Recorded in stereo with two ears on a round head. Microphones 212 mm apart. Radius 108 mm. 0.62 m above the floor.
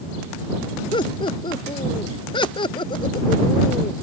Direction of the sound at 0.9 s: 20° left (ahead or behind).